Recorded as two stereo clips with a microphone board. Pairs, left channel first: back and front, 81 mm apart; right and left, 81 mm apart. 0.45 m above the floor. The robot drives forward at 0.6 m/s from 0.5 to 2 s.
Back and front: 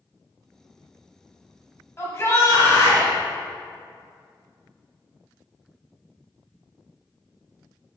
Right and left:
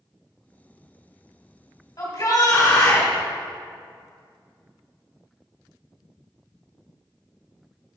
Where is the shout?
125° right, 3 m.